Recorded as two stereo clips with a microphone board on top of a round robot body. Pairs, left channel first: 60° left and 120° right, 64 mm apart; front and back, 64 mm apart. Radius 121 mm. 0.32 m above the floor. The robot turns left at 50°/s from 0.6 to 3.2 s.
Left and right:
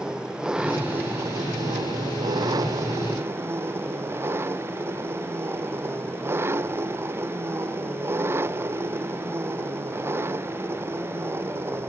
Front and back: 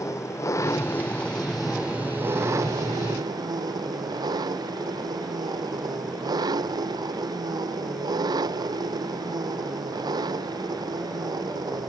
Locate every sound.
0.0 s an engine running: 40° right; by 11.9 s 170° right